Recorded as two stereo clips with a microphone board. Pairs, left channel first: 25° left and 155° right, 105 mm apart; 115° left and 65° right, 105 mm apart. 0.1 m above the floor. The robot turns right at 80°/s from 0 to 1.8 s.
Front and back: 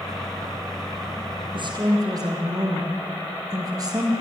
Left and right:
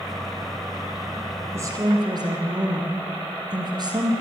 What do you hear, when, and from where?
1.5 s a woman speaking: 130° right, 3.5 m; by 4.1 s 110° right, 3.5 m